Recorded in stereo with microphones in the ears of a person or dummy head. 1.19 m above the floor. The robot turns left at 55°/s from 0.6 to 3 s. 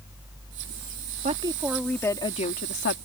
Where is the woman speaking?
145° right; by 3.0 s 120° left.